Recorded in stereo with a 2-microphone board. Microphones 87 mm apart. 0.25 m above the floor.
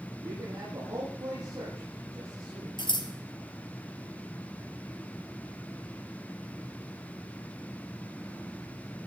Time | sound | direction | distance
0.2 | a man speaking | 30° right (ahead or behind) | 9 m
2.8 | scissors | 65° left (ahead or behind) | 1.8 m